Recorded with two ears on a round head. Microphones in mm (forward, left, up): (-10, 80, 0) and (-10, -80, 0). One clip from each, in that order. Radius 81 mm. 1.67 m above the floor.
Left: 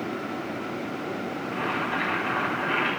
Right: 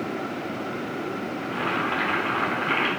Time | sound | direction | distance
1.4 | boiling | 40° right (ahead or behind) | 5.5 m